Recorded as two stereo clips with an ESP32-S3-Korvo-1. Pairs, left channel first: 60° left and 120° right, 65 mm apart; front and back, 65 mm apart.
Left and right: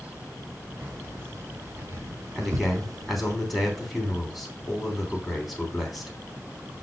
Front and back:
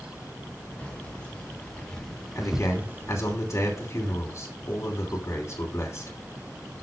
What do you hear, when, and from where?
0.8 s keys jangling: 70° right, 2.5 m; by 3.4 s 170° right, 0.6 m
2.4 s a man speaking: 35° right, 3 m